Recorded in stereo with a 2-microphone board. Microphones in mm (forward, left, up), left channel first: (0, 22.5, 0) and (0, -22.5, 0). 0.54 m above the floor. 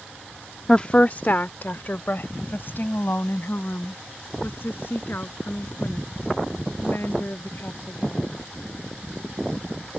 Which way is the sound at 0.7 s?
15° left (ahead or behind).